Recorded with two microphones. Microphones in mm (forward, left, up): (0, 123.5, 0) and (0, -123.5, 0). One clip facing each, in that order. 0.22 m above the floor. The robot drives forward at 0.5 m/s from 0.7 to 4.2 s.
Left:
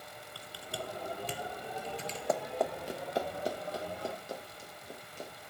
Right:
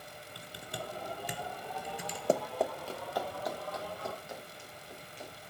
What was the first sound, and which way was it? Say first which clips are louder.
Typing on a keyboard: left 1 dB; 20° right (ahead or behind).